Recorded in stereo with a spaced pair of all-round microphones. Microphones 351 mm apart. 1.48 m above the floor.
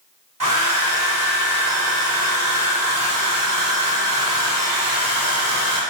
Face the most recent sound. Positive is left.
turn(degrees=-60)  # may be behind; listen again after turning